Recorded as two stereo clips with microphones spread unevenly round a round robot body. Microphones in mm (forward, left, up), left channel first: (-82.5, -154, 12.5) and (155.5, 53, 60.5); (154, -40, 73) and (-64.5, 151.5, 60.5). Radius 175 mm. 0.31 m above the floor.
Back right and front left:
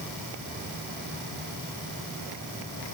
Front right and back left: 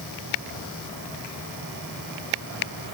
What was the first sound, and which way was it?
Only background noise.